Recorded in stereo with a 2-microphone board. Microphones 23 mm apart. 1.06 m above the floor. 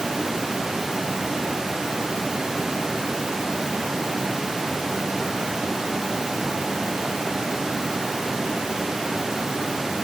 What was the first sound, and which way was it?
Only background noise.